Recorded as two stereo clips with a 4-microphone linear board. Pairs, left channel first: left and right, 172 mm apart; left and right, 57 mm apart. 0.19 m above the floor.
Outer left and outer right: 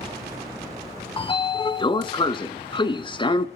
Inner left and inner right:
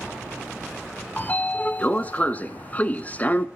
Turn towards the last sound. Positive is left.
turn(degrees=30)  # may be behind; listen again after turning